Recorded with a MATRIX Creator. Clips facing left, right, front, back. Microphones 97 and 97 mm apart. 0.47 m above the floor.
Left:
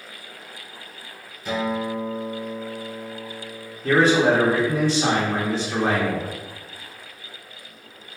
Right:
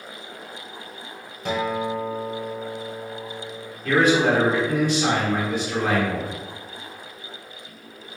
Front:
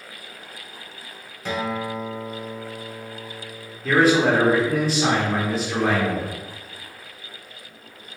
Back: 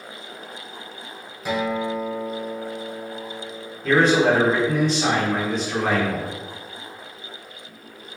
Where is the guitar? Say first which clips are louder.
Even, back 3 dB; 100° right, 0.8 m.